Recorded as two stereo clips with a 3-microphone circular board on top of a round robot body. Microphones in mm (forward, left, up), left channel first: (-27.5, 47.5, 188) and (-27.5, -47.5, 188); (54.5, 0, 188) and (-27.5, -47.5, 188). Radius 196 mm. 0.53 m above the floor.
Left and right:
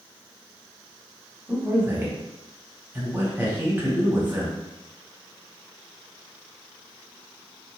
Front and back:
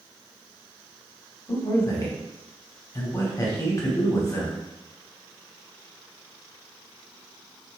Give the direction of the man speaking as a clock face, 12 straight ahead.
1 o'clock.